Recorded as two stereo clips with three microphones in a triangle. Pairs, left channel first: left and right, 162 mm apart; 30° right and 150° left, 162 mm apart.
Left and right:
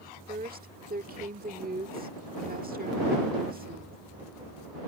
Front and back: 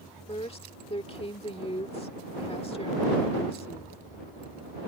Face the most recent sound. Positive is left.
turn(degrees=-80)